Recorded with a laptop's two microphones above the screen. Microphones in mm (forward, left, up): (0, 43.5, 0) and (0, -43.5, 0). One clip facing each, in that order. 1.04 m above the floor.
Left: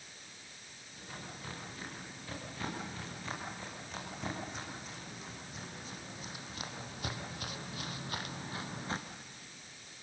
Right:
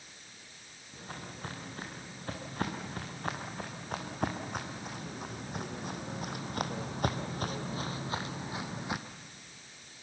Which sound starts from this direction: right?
Footsteps, at 0.9 s.